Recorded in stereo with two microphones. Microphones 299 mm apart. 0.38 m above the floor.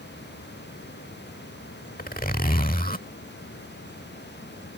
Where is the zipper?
30° left (ahead or behind).